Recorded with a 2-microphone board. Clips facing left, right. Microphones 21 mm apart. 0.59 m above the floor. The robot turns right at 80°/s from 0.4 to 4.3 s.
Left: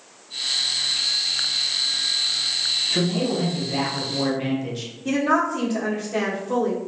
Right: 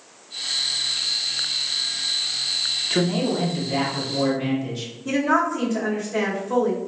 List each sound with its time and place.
2.9 s a man speaking: 85° right, 0.7 m; by 4.9 s 25° left, 0.7 m
5.0 s a woman speaking: 55° left (ahead or behind), 1.1 m